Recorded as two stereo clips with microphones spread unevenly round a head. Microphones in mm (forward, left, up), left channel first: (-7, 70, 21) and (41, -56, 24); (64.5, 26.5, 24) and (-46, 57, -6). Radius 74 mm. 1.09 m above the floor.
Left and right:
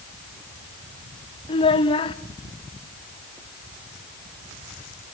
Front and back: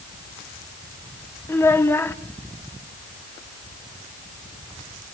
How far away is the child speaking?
About 1.2 m.